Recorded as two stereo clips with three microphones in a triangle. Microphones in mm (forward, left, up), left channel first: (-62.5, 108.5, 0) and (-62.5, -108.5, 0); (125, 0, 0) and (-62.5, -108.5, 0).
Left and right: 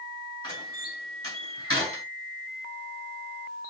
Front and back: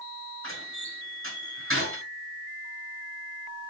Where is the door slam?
130° right, 6.5 m.